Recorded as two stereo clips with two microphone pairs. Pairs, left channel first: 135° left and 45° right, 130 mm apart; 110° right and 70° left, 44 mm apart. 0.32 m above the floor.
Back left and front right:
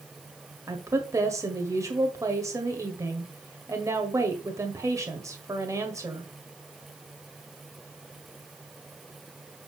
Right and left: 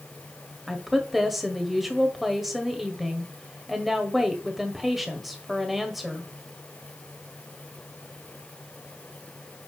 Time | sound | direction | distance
0.7 | a woman speaking | 15° right | 1.6 m